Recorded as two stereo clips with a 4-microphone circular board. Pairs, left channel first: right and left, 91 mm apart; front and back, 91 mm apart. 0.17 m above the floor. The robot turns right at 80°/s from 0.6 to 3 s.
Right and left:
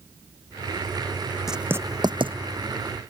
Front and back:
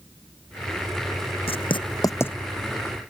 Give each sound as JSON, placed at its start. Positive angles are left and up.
{"t": 1.5, "sound": "writing", "azimuth_deg": 5}